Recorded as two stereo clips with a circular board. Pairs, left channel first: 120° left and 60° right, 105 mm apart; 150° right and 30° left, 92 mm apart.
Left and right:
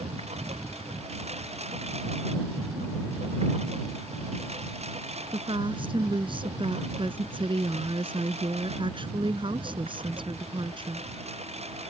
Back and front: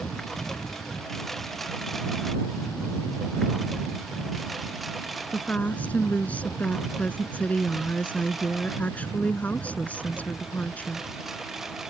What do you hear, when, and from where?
0.0 s a lawn mower: 65° right; by 11.9 s 55° right
5.3 s a woman speaking: 80° right